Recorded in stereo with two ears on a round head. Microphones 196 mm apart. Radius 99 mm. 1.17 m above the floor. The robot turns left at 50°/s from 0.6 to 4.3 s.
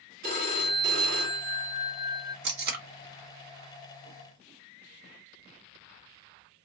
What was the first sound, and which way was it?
A phone ringing, 45° right.